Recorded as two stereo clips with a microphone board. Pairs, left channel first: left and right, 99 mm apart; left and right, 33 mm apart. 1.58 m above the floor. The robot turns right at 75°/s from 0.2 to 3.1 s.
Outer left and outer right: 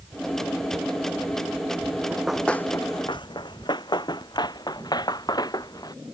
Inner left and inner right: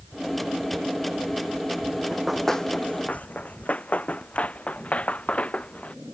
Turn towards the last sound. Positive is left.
turn(degrees=40)  # may be behind; listen again after turning